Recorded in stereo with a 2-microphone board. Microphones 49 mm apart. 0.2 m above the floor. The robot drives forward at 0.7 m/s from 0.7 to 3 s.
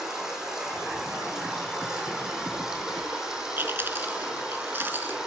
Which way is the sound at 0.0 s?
15° right (ahead or behind).